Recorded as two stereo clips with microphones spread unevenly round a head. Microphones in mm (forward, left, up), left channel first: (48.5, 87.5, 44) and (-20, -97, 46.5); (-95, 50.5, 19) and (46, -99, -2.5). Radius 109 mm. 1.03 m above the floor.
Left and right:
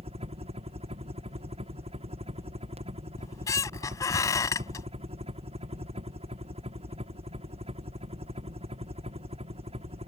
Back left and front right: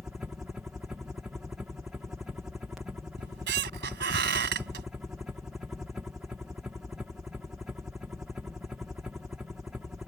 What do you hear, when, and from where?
0.0 s a helicopter: 120° right
3.2 s a squeak: 5° right